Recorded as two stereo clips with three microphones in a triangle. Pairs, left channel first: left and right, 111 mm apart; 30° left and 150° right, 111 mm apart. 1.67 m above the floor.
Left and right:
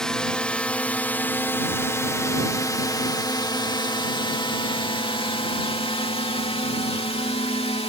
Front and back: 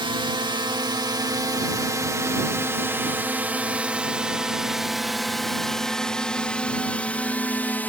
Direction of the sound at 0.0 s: 175° left.